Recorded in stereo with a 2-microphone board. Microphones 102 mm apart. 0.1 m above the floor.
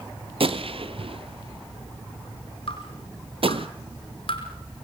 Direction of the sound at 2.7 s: 60° left (ahead or behind).